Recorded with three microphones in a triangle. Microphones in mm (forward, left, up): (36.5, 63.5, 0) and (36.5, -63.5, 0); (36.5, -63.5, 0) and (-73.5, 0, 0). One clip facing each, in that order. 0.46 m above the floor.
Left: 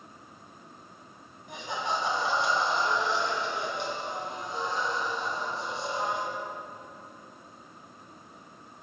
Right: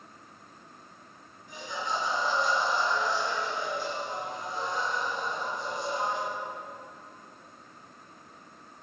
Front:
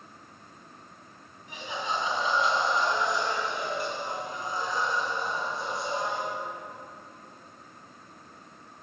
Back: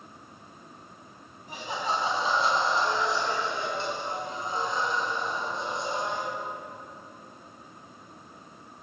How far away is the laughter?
About 3 m.